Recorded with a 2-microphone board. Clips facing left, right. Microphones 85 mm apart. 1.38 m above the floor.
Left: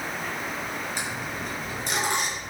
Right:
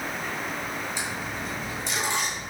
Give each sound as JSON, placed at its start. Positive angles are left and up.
{"t": 1.0, "sound": "a dropped coin", "side_deg": 55, "distance_m": 6.0}